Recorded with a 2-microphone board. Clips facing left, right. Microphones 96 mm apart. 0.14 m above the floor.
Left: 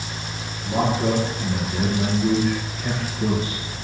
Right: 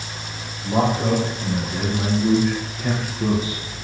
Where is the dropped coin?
I don't hear a dropped coin.